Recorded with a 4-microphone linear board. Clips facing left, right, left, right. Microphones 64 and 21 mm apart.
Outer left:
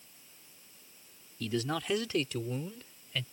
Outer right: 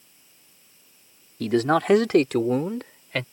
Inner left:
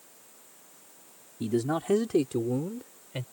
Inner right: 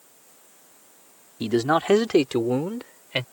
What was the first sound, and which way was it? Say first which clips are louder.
A man speaking: outer right 13 dB, inner right 7 dB; 60° right (ahead or behind).